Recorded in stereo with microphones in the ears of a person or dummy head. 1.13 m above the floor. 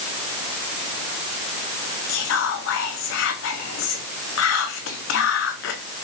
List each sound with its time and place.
2.1 s whispering: 60° left (ahead or behind), 0.7 m